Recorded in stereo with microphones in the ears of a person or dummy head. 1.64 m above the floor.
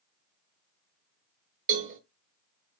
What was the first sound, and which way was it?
A cowbell, 45° right (ahead or behind).